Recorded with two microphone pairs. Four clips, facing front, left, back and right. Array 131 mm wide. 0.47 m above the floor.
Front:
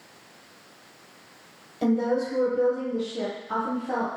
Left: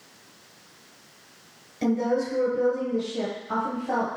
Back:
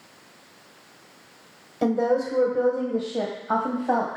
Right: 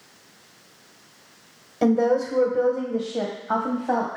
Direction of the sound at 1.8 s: 115° right.